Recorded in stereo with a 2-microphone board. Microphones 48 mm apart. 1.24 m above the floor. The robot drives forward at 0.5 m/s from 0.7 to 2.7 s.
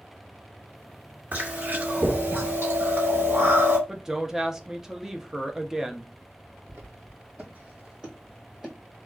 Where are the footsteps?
40° right (ahead or behind), 1.8 m; by 8.8 s 5° right (ahead or behind), 1.8 m.